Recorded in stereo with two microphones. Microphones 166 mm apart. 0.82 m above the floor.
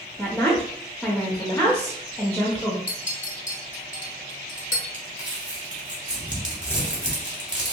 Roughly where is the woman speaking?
Centre.